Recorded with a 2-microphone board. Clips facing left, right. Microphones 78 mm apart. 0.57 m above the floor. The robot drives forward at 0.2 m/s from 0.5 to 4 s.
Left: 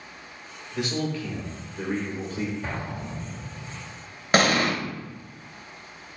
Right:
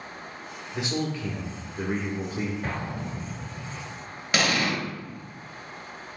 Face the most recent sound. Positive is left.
turn(degrees=40)  # may be behind; listen again after turning